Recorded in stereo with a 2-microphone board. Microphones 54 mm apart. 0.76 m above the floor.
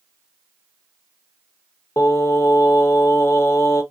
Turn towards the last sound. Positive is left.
turn(degrees=55)  # may be behind; listen again after turning